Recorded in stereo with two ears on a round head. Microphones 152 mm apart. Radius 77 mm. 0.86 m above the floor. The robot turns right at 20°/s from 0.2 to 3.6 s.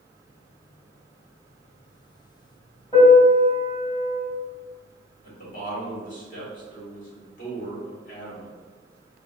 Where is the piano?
25° left (ahead or behind), 1.8 m; by 4.2 s 40° left (ahead or behind), 1.8 m.